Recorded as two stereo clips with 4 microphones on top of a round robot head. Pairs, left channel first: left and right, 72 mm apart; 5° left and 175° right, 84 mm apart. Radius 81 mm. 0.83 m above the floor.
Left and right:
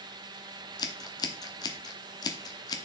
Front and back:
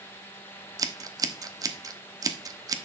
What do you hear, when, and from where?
0.8 s scissors: 135° left, 0.9 m